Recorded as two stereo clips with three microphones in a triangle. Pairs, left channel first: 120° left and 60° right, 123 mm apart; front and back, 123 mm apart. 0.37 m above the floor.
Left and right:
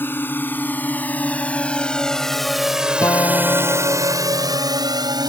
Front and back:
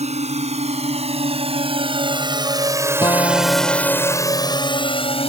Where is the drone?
170° right; by 5.3 s 10° right.